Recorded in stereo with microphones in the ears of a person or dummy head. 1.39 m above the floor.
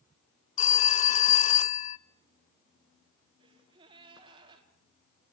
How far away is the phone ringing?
About 0.5 m.